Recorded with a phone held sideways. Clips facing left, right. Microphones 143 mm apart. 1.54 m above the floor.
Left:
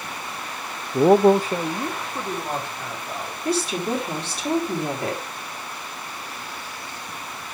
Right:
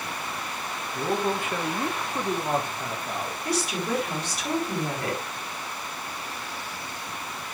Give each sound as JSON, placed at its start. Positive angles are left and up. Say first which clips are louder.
{"t": 0.9, "sound": "a man speaking", "louder": "left 13 dB", "side_deg": 70, "distance_m": 0.6}
{"t": 3.5, "sound": "a woman speaking", "louder": "left 5 dB", "side_deg": 30, "distance_m": 3.5}